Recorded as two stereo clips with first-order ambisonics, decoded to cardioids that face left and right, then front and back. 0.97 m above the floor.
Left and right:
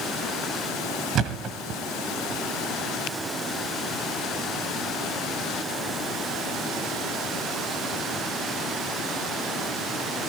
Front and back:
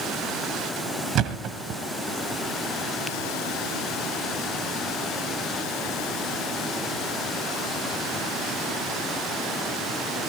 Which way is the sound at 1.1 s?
140° right.